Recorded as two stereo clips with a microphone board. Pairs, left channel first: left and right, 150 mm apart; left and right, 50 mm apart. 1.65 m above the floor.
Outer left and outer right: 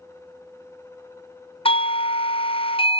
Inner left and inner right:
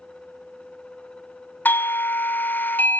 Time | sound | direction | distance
1.6 | a doorbell | 35° left (ahead or behind) | 0.5 m